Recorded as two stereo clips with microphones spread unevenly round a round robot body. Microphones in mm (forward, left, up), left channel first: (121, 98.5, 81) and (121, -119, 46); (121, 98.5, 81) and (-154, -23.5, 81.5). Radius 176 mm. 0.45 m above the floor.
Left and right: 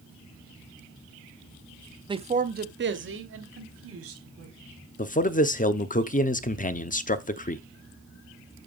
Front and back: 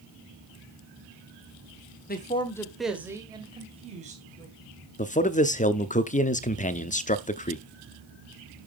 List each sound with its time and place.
2.1 s a man speaking: 30° right, 1.4 m; by 4.5 s 90° right, 4 m
5.0 s a man speaking: 60° left, 1.0 m